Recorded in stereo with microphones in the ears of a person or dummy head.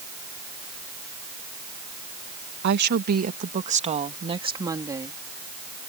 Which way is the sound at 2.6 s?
60° right (ahead or behind).